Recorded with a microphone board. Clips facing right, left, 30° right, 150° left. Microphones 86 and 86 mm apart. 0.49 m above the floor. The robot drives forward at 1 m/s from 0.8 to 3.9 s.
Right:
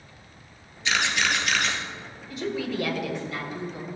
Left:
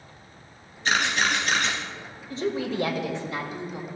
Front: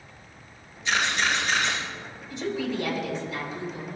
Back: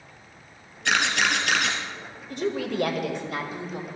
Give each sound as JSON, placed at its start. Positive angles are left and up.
{"t": 0.8, "sound": "a camera shutter", "azimuth_deg": 135, "distance_m": 2.5}
{"t": 2.3, "sound": "a woman speaking", "azimuth_deg": 140, "distance_m": 1.9}